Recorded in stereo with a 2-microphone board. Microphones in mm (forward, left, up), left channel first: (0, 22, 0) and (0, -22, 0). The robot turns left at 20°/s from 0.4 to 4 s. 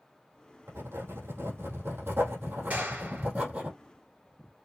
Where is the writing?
90° right, 3 m; by 3.7 s 150° right, 3 m.